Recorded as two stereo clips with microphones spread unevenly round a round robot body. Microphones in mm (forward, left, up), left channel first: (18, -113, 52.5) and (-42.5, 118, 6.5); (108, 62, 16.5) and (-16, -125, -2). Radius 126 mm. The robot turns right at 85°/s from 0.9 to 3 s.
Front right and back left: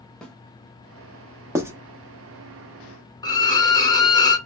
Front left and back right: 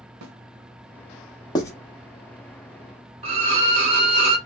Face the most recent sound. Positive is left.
turn(degrees=-155)